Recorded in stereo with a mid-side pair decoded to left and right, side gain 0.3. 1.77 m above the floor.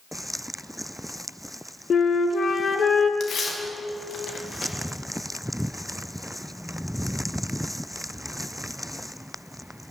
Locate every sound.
1.9 s a flute: 60° left, 1.1 m
3.2 s tearing paper: 70° left, 2 m